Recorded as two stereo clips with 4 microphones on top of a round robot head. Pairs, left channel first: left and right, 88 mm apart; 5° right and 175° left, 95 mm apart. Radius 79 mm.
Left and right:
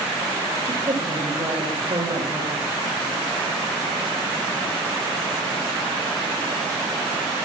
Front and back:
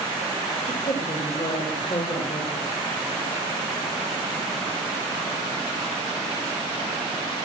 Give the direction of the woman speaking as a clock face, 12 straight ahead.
1 o'clock.